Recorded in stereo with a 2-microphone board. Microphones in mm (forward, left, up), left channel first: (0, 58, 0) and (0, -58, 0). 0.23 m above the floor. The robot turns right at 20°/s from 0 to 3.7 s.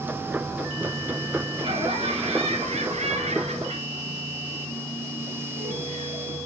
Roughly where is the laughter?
Behind right.